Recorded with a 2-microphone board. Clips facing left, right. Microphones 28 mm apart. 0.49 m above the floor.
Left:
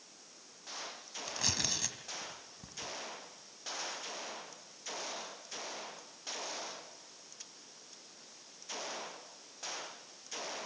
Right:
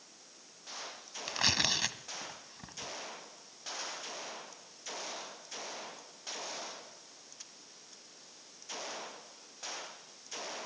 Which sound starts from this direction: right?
Tearing paper, at 1.3 s.